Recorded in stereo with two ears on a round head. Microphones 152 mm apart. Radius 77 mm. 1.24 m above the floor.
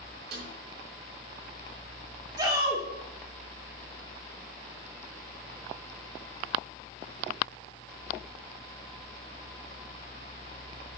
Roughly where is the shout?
Right.